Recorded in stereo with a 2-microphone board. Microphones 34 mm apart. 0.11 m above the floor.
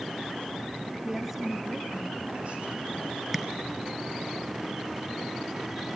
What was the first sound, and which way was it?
A woman speaking, 5° right (ahead or behind).